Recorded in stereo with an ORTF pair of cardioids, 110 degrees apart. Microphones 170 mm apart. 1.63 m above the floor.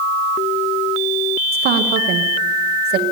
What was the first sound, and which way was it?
A woman speaking, 65° right.